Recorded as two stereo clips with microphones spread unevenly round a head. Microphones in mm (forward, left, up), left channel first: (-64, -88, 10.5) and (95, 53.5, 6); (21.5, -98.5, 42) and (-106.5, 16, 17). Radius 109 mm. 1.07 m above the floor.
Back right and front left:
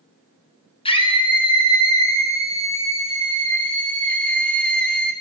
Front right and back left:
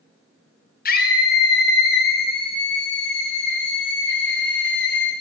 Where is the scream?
75° right, 6 m; by 5.1 s 50° right, 8 m.